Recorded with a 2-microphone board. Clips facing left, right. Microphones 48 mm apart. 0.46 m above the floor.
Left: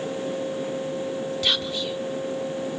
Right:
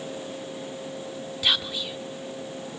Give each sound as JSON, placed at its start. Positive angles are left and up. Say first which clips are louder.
{"t": 1.4, "sound": "whispering", "louder": "right 2 dB", "side_deg": -10, "distance_m": 1.2}